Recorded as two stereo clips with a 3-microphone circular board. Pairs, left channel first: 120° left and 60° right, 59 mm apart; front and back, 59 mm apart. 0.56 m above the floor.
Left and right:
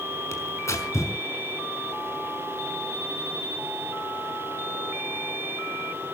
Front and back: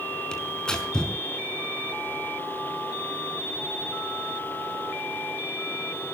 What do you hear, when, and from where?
0.3 s tearing paper: 80° left, 5 m